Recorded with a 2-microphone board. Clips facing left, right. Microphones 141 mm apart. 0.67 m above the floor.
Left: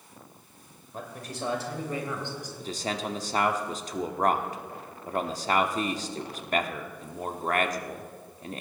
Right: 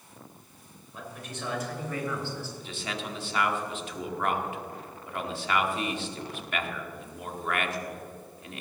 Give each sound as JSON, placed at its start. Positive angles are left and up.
{"t": 0.9, "sound": "a man speaking", "side_deg": 45, "distance_m": 2.0}
{"t": 2.6, "sound": "a man speaking", "side_deg": 40, "distance_m": 1.0}